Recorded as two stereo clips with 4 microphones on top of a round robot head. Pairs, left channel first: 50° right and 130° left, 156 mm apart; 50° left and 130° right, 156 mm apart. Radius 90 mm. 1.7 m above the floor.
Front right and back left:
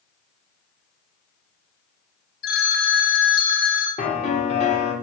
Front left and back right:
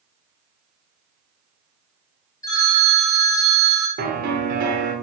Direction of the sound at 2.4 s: 25° right.